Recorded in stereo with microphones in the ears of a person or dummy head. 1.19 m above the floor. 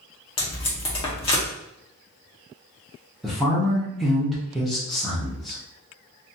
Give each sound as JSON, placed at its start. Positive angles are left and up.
{"t": 0.4, "sound": "tape being pulled", "side_deg": 25, "distance_m": 0.8}
{"t": 3.2, "sound": "a woman speaking", "side_deg": 0, "distance_m": 0.8}